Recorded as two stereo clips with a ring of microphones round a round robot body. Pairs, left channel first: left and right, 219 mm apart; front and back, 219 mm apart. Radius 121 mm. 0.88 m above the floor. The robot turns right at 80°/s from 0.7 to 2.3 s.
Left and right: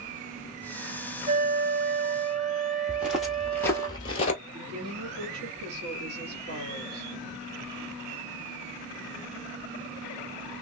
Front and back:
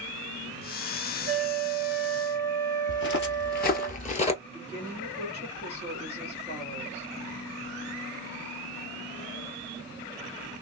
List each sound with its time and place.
1.3 s a flute: 150° right, 2 m; by 3.9 s 70° right, 2 m
2.9 s footsteps: 10° right, 1.2 m; by 4.3 s 45° left, 1.0 m
4.4 s a woman speaking: 65° right, 2.5 m